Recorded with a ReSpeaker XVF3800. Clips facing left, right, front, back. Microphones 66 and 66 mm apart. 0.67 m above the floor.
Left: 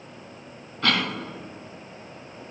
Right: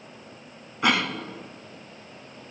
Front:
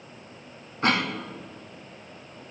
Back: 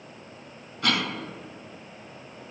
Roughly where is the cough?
Ahead right.